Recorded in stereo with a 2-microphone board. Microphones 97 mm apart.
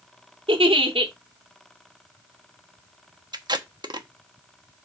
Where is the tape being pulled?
50° right (ahead or behind), 1.1 m.